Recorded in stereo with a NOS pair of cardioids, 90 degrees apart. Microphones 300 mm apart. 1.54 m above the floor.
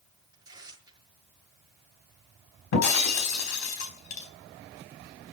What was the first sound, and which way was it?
Tearing paper, 10° right.